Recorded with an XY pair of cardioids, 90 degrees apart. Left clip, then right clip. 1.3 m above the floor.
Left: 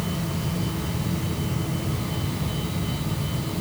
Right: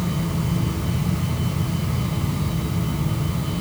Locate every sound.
0.0 s a fan: 40° right, 7.5 m